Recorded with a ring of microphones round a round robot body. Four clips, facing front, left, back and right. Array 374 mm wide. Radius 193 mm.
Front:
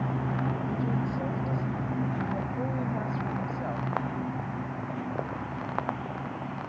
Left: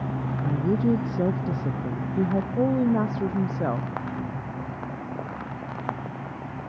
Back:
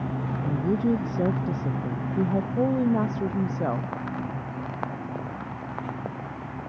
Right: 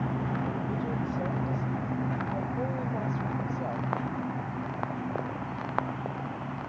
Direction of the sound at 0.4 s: 125° left.